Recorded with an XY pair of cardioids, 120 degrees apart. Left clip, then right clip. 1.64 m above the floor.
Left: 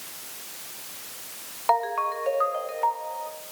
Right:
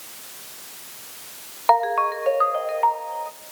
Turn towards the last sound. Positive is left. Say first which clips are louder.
# right 5 dB
turn(degrees=-35)